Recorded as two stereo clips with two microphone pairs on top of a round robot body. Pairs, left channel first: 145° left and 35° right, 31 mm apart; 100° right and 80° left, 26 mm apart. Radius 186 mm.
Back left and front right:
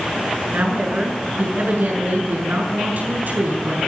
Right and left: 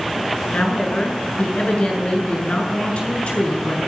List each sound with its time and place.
0.5 s a woman speaking: 65° right, 8 m